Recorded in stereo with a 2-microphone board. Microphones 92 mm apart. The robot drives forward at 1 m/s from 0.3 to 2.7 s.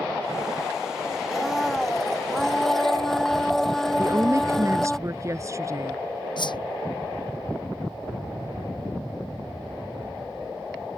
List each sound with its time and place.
1.3 s a blender: 5° left (ahead or behind)
4.0 s a woman speaking: 35° right (ahead or behind)
6.4 s a whoosh: 55° left (ahead or behind)